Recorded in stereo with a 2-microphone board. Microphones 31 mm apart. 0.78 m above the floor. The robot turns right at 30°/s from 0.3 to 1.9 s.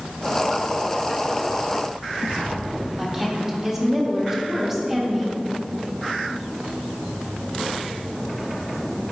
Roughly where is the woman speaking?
Centre.